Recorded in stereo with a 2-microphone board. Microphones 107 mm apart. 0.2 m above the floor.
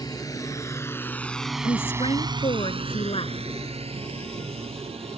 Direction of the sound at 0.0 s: 35° left (ahead or behind).